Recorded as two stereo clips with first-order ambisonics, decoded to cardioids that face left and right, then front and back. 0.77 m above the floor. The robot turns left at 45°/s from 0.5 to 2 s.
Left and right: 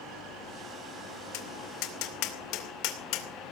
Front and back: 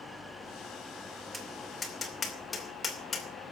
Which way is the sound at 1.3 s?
105° left.